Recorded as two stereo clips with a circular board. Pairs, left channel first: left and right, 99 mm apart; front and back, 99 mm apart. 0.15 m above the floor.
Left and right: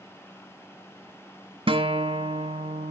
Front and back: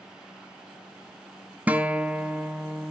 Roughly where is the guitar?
Right.